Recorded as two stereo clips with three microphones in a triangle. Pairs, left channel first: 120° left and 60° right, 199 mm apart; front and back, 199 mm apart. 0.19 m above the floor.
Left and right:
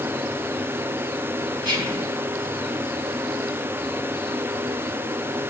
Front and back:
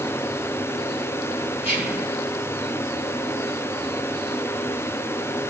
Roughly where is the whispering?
Ahead.